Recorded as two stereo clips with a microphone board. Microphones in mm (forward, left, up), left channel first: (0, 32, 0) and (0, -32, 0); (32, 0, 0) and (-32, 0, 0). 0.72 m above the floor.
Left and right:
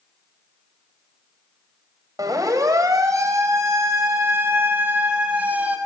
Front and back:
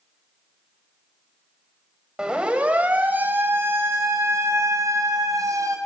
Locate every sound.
2.2 s a siren: 105° right, 5 m; by 5.8 s 155° right, 7.5 m